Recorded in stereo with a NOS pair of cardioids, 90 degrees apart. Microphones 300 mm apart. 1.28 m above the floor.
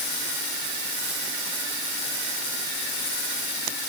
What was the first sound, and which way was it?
Only background noise.